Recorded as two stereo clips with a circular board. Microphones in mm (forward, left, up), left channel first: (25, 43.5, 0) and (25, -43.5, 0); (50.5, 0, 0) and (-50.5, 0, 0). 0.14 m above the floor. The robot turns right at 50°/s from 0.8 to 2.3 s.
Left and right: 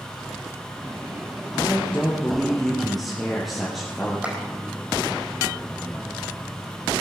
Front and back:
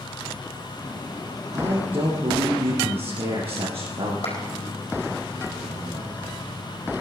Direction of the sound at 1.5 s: 140° left.